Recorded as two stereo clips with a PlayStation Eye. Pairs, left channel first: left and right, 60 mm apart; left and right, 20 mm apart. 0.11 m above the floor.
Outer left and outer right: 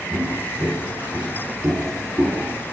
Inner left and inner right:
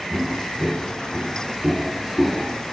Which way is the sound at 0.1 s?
65° right (ahead or behind).